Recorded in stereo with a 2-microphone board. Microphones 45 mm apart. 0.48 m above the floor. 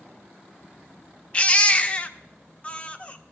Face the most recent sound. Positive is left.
turn(degrees=25)  # may be behind; listen again after turning